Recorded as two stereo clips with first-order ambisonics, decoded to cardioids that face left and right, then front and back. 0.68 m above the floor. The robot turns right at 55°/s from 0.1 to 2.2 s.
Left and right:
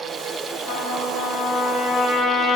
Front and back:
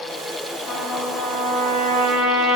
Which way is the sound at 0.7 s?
100° left.